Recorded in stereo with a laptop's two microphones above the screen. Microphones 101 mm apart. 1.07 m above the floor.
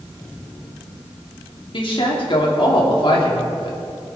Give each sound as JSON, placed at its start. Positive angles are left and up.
{"t": 1.7, "sound": "a woman speaking", "side_deg": 55, "distance_m": 2.5}